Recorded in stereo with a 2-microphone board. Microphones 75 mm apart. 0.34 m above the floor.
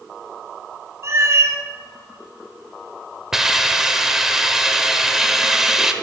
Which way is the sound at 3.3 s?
5° right (ahead or behind).